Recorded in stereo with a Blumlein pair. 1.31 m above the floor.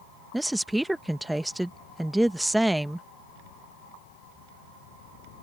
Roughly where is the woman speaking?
Ahead.